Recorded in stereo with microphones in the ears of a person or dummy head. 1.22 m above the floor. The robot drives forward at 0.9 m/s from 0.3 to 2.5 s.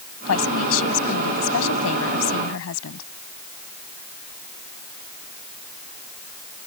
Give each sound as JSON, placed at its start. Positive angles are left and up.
{"t": 0.2, "sound": "a woman speaking", "side_deg": 85}